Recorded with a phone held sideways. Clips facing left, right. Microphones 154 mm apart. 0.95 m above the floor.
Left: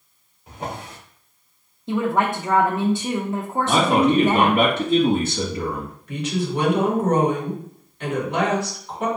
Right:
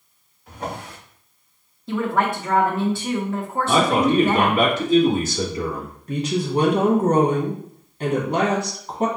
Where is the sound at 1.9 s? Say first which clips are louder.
Left 1 dB; 20° left (ahead or behind), 0.8 m.